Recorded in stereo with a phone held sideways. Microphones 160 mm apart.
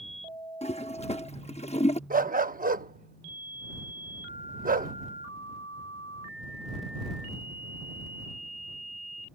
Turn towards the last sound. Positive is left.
turn(degrees=-60)  # may be behind; listen again after turning